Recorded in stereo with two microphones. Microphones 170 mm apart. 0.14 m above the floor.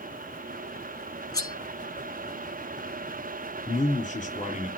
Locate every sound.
1.3 s cutlery clinking: 25° left (ahead or behind), 0.8 m
3.7 s a man speaking: 50° left (ahead or behind), 2.5 m